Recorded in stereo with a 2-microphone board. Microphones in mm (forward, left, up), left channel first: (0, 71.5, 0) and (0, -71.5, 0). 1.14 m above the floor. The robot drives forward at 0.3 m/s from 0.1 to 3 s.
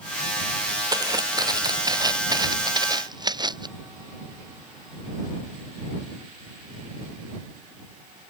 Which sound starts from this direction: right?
Footsteps, at 0.9 s.